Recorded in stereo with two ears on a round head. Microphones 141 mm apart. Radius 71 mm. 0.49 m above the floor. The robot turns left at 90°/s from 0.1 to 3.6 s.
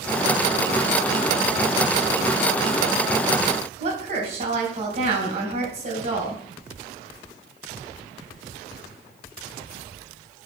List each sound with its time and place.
3.8 s a woman speaking: 40° right (ahead or behind), 3.5 m